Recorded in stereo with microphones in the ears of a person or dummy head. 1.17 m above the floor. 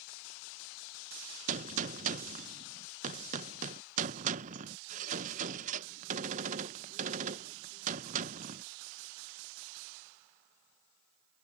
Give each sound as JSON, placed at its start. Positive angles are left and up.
{"t": 1.5, "sound": "a gunshot", "side_deg": -35}